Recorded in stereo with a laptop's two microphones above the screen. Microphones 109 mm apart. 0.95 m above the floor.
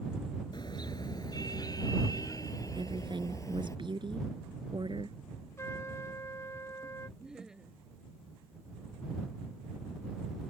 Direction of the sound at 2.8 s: 45° right (ahead or behind).